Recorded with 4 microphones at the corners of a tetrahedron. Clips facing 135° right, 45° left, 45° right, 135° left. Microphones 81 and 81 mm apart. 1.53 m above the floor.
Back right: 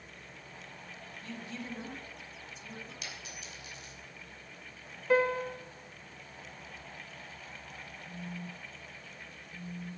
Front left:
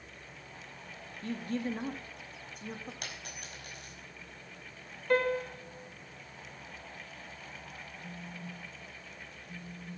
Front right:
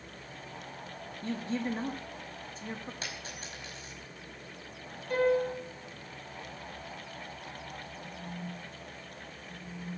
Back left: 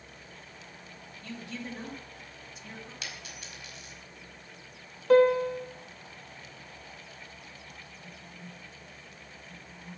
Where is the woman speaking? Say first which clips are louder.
Front left 9 dB, front right 7 dB; 5° left, 2 m.